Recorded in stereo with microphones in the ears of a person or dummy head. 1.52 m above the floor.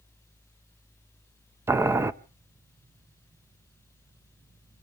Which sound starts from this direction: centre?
Boiling, at 1.7 s.